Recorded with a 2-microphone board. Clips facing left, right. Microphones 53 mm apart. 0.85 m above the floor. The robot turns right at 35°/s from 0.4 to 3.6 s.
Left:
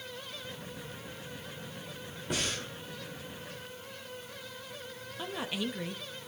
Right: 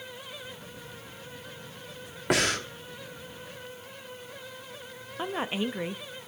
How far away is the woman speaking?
About 0.6 m.